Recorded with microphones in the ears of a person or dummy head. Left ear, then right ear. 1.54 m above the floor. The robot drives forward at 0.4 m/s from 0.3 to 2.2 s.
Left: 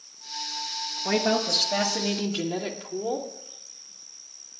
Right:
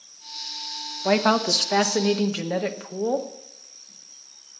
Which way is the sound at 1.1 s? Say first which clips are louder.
Right 4 dB; 65° right (ahead or behind).